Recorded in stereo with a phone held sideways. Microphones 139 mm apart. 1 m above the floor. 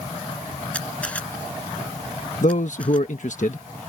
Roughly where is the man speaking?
Left.